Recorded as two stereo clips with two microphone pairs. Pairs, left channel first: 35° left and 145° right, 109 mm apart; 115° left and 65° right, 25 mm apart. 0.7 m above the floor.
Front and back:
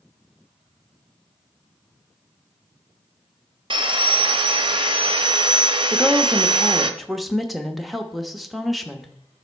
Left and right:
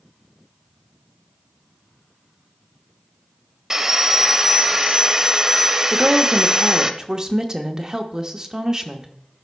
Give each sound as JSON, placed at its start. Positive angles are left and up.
{"t": 3.7, "sound": "sawing", "azimuth_deg": -125, "distance_m": 0.6}
{"t": 5.9, "sound": "a woman speaking", "azimuth_deg": -55, "distance_m": 0.8}